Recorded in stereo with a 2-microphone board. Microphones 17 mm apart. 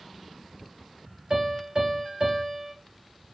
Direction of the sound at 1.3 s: 40° right (ahead or behind).